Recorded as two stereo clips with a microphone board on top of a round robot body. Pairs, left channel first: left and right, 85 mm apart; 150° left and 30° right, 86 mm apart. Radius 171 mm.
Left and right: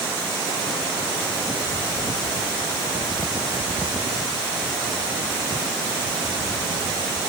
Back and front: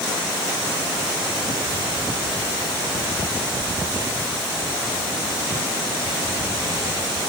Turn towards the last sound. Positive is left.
No sound to turn to.